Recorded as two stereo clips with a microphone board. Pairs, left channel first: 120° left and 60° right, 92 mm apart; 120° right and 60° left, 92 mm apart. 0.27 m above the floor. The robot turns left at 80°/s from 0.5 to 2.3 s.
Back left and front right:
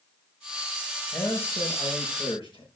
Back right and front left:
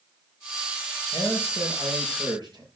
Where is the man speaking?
170° right, 6 m; by 2.7 s 100° left, 6 m.